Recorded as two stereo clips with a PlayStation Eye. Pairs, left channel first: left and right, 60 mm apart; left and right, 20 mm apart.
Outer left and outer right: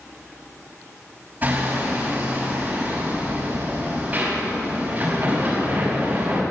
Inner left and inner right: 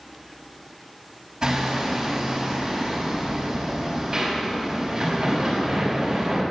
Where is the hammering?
30° right (ahead or behind), 5.5 m.